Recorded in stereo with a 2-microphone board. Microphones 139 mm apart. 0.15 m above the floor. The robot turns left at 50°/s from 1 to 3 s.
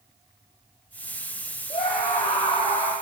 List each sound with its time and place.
1.7 s a scream: 40° left, 6.5 m; by 2.9 s 20° right, 6.5 m